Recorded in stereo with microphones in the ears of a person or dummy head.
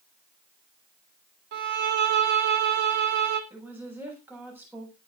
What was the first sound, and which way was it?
A violin, 55° right (ahead or behind).